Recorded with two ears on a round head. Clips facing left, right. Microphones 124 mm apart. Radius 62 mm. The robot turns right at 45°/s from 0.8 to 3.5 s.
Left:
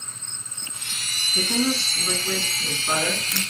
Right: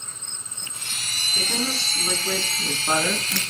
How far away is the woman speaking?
About 4 m.